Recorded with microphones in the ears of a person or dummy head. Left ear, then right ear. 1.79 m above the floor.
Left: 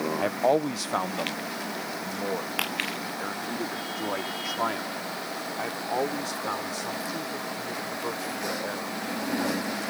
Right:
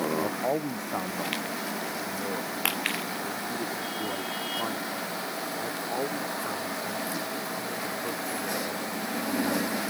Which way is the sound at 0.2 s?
75° left (ahead or behind).